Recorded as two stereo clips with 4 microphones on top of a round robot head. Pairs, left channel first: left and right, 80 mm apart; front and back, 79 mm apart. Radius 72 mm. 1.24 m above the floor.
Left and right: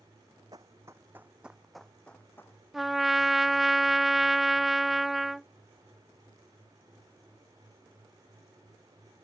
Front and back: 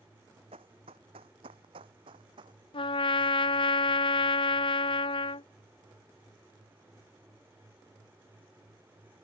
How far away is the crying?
I don't hear crying.